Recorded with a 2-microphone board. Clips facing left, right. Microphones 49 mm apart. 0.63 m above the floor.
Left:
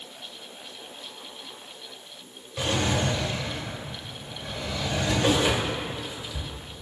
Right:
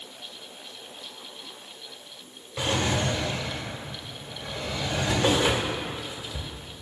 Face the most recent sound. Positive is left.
turn(degrees=-25)  # may be behind; listen again after turning